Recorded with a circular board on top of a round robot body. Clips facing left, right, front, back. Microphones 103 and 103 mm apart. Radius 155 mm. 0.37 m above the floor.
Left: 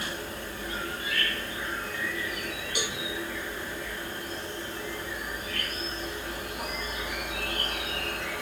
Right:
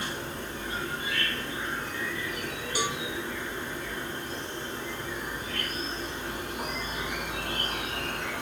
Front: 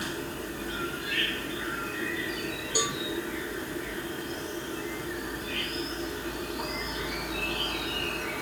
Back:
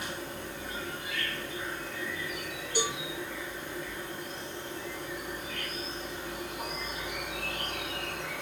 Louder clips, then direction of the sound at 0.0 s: Right 1 dB, front 4 dB; 20° right.